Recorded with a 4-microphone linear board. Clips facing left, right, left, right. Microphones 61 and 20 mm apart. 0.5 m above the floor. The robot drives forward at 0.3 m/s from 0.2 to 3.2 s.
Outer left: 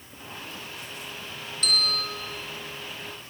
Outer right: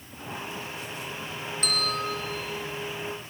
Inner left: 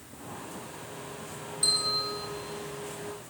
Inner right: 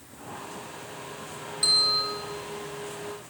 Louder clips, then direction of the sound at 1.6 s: Even, inner right 5 dB; 35° right (ahead or behind).